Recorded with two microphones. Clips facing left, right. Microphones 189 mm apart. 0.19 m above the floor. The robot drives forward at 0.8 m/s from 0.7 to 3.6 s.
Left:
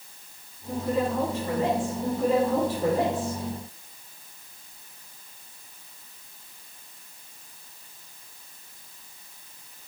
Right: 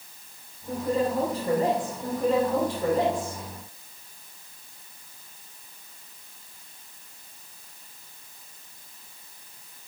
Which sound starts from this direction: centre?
A woman speaking, at 2.0 s.